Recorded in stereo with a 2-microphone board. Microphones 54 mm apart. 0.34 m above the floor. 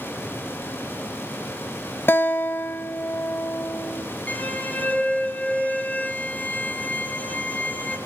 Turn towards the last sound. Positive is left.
turn(degrees=30)  # may be behind; listen again after turning